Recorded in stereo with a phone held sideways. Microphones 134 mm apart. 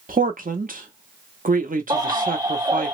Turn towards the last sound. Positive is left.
turn(degrees=-25)  # may be behind; listen again after turning